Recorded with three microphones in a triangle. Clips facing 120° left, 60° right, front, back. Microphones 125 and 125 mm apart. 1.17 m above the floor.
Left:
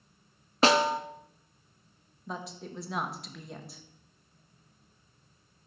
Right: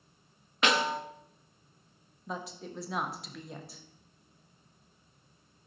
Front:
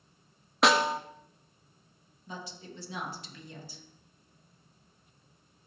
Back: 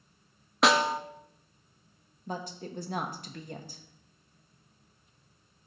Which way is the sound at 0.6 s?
90° left.